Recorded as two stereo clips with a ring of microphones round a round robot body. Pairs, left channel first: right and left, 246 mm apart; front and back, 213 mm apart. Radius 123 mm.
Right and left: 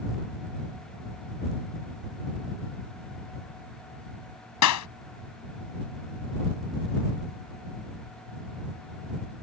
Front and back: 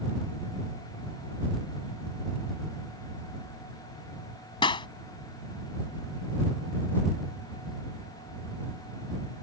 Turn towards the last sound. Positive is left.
turn(degrees=-70)